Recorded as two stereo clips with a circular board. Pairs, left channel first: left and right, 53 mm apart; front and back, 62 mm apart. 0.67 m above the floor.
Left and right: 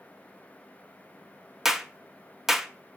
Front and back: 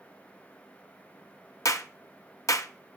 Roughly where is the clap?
Ahead.